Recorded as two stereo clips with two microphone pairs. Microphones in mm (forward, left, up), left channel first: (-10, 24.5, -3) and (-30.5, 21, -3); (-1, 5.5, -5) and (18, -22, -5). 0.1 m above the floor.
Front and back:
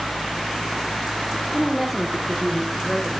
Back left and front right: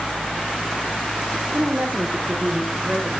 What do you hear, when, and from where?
1.5 s a woman speaking: 75° right, 4.5 m; by 3.1 s 85° right, 6 m